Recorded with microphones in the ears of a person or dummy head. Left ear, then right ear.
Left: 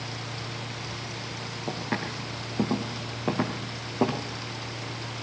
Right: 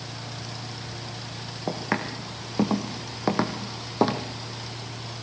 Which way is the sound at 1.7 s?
70° right (ahead or behind).